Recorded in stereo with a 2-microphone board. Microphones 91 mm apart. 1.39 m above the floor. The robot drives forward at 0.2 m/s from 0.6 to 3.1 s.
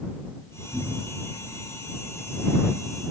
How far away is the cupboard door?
About 5.5 m.